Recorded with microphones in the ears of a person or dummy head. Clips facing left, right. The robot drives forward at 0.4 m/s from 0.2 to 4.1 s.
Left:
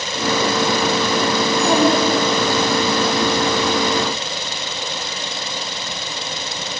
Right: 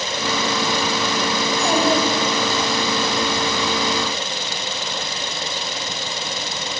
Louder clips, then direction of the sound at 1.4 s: Left 3 dB; 75° left (ahead or behind).